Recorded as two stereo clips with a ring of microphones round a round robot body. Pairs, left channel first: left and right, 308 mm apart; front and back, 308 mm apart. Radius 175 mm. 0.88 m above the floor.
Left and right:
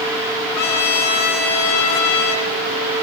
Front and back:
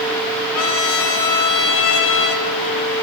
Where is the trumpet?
25° left, 5.5 m.